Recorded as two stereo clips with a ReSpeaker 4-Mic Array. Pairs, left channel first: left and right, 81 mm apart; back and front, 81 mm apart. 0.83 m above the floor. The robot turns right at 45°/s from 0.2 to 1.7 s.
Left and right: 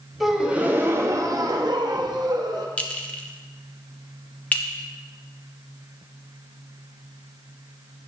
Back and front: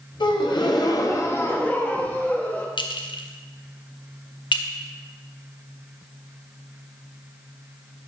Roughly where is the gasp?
Behind.